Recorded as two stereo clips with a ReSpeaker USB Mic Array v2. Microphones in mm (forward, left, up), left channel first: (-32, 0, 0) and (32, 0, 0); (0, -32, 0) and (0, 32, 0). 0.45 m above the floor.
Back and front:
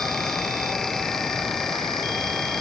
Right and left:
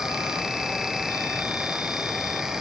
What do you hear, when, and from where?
Only background noise.